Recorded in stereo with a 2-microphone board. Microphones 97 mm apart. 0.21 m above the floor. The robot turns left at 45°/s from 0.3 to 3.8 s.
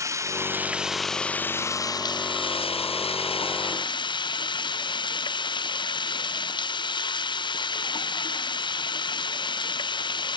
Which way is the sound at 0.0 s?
150° right.